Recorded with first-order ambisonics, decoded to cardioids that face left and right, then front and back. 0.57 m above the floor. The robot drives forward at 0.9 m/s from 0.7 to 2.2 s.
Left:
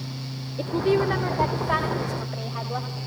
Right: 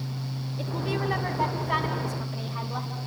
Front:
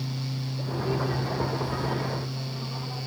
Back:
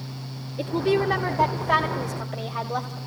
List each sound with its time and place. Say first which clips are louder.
0.6 s a woman speaking: left 8 dB, back 8 dB; 130° left, 1.6 m; by 3.0 s 155° left, 2.5 m